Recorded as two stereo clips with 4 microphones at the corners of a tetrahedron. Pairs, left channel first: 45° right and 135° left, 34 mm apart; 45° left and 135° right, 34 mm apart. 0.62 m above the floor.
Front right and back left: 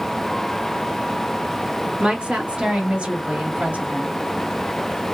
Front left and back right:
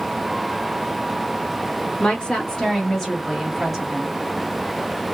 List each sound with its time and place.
2.0 s a woman speaking: 90° left, 1.5 m; by 4.2 s 150° left, 1.8 m